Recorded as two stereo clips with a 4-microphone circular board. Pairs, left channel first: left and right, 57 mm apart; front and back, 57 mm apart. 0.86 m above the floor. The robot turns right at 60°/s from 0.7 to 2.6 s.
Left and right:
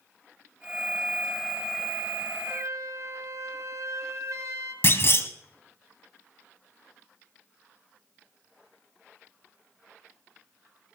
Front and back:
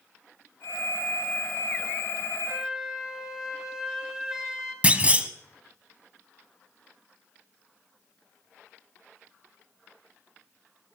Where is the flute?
110° right, 3 m; by 4.7 s 100° right, 3 m.